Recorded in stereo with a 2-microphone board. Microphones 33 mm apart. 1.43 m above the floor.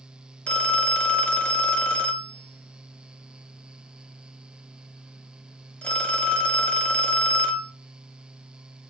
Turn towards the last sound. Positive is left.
turn(degrees=35)  # may be behind; listen again after turning